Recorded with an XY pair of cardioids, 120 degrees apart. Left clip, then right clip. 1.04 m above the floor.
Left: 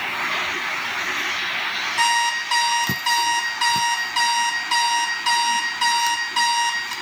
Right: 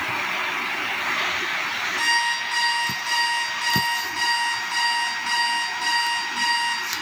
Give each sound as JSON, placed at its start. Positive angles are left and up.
{"t": 2.0, "sound": "an alarm clock", "azimuth_deg": 70, "distance_m": 2.0}